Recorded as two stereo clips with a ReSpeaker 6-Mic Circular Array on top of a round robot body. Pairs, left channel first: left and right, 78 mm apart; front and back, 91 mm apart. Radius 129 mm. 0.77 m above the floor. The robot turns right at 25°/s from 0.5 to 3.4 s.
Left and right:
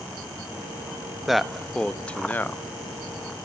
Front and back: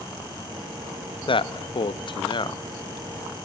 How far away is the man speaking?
About 1.1 m.